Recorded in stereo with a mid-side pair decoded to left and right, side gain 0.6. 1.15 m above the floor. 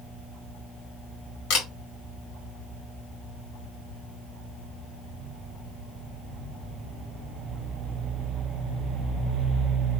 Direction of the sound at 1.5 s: 65° left.